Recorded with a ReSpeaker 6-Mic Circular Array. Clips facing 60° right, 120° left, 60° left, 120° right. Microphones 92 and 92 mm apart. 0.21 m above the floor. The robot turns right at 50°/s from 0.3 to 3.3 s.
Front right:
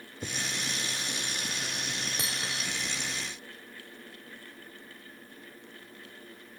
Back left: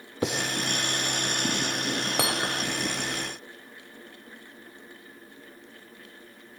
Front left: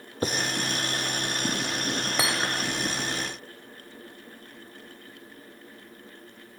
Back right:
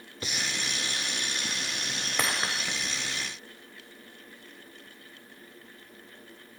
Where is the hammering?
140° left; by 2.8 s 170° left.